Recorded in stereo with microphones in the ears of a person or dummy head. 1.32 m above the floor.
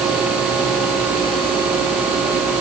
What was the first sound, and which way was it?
Only background noise.